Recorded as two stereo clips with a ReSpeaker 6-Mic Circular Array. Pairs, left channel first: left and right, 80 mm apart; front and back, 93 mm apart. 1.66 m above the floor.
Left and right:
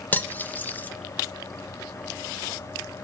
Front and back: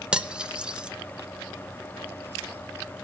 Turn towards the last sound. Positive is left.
turn(degrees=115)